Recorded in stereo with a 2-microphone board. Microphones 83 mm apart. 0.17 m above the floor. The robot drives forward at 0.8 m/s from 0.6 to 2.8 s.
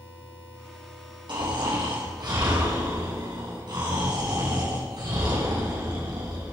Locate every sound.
1.3 s snoring: 80° right, 6.5 m; by 6.5 s 70° right (ahead or behind), 7 m